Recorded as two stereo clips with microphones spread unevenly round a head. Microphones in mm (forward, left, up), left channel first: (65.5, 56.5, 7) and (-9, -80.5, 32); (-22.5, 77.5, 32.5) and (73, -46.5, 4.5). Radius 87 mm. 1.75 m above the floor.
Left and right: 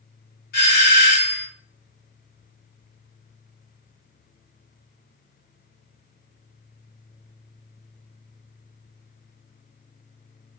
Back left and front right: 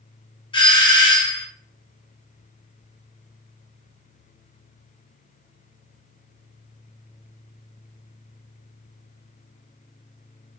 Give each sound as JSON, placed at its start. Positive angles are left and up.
{"t": 0.5, "sound": "a doorbell", "azimuth_deg": 65, "distance_m": 1.5}